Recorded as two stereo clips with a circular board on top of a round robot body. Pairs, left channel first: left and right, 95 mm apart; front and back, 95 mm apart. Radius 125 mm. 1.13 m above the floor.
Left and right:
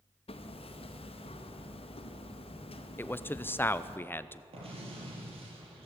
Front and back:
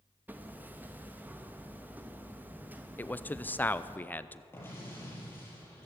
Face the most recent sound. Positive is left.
turn(degrees=-65)